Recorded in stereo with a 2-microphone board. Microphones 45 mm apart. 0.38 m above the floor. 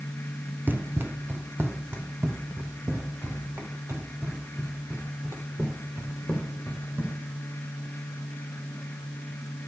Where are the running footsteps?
50° right (ahead or behind), 0.5 m; by 7.2 s 85° right, 4 m.